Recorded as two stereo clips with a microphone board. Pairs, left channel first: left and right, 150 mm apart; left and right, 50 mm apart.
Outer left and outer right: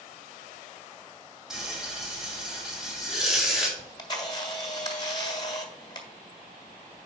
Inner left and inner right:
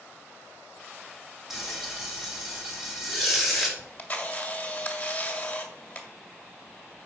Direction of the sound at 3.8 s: 30° left (ahead or behind).